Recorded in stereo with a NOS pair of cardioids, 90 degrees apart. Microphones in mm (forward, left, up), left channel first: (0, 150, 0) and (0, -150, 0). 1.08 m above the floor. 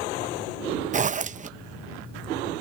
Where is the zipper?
25° right.